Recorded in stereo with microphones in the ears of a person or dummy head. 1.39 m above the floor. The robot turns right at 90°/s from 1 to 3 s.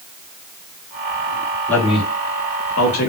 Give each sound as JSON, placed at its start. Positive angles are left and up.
{"t": 1.7, "sound": "a man speaking", "azimuth_deg": 5, "distance_m": 3.5}